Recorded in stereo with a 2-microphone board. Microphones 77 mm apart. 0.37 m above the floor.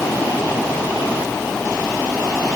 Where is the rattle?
I don't hear a rattle.